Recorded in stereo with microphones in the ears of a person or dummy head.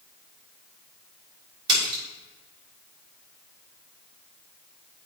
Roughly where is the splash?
Right.